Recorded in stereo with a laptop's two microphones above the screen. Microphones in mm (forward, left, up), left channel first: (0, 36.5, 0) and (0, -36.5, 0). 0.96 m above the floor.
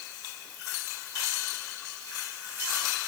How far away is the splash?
No splash in this recording.